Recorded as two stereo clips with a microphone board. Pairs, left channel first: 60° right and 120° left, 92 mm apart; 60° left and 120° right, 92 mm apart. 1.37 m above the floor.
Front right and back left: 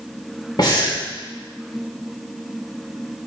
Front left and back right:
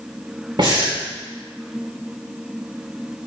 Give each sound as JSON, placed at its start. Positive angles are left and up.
{"t": 0.6, "sound": "breathing", "azimuth_deg": -95, "distance_m": 2.5}